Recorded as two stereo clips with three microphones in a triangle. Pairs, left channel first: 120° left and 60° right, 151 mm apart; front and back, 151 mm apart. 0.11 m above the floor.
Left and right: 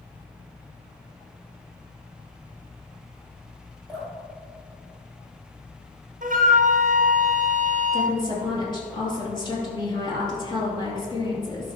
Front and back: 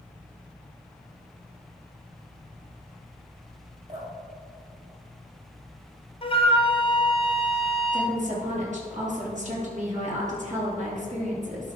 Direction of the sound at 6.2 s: 45° right.